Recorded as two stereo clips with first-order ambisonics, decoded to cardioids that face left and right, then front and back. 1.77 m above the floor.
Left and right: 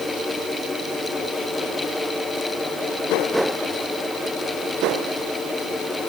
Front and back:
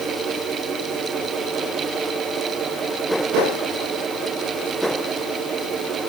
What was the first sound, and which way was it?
Only background noise.